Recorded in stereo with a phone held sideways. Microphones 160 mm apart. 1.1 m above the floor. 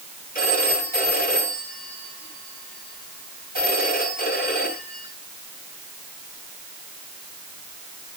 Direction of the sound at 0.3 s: 65° left (ahead or behind).